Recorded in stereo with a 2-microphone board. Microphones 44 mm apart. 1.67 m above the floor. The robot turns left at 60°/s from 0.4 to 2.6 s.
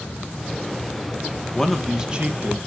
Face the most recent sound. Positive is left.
turn(degrees=-45)